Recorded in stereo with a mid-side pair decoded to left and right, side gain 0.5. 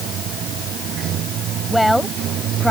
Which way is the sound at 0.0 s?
65° right.